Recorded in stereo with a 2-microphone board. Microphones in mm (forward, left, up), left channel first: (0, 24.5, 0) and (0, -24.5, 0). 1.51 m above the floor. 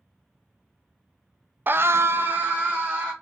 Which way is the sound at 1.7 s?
40° right (ahead or behind).